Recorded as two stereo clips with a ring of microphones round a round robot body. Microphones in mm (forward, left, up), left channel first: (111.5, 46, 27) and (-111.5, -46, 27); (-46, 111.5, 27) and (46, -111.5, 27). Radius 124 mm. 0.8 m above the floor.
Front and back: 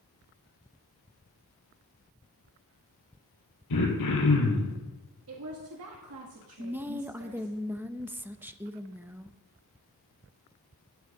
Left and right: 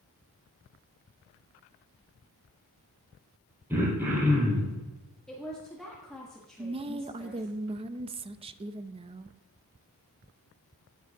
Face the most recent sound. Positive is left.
turn(degrees=-85)